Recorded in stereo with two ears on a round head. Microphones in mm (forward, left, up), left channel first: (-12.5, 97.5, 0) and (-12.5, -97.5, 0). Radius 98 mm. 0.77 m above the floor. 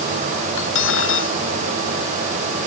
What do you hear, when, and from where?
0.6 s cutlery clinking: 65° left (ahead or behind)